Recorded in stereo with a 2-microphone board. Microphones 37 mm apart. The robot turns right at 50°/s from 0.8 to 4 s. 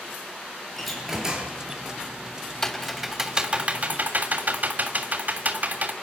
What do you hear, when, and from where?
0.8 s a door slam: 175° left, 7.5 m; by 1.6 s 145° right, 7.5 m
2.6 s typing on a keyboard: 15° left (ahead or behind), 3 m; by 5.9 s 50° right (ahead or behind), 3 m